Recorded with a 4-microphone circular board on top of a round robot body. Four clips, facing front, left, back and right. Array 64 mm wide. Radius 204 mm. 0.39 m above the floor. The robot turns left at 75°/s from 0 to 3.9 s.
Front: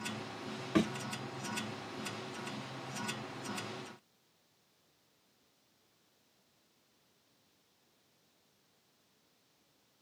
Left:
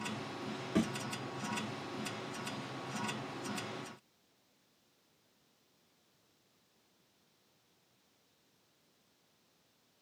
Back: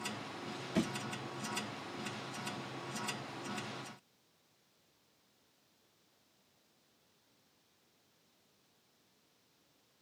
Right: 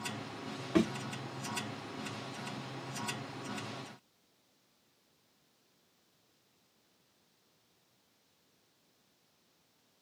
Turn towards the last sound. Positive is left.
turn(degrees=80)